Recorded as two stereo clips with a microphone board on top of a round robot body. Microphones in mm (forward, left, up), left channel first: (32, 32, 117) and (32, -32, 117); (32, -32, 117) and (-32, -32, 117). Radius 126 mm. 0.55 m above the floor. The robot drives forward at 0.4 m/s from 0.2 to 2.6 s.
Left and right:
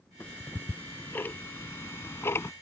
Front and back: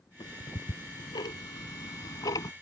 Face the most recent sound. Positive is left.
turn(degrees=40)